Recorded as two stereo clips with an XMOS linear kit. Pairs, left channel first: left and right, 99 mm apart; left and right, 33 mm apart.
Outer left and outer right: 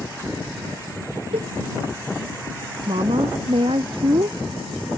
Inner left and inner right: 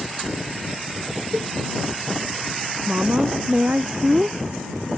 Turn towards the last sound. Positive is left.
turn(degrees=-65)  # may be behind; listen again after turning